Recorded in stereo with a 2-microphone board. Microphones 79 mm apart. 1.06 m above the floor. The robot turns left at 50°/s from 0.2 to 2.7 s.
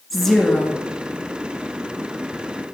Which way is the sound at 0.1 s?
5° right (ahead or behind).